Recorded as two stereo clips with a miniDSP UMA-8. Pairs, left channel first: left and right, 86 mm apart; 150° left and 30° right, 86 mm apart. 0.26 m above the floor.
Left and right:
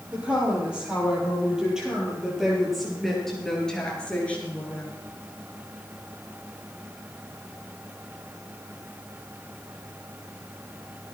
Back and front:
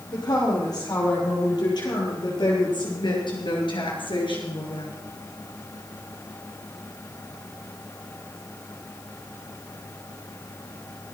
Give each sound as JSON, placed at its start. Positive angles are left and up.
{"t": 0.1, "sound": "a woman speaking", "azimuth_deg": -165, "distance_m": 10.0}